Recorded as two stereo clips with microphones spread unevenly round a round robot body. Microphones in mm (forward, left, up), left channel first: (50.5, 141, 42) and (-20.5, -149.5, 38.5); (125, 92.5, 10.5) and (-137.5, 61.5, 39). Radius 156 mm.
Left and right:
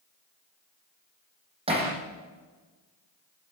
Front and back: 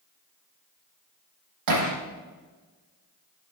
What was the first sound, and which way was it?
Hammering, 175° right.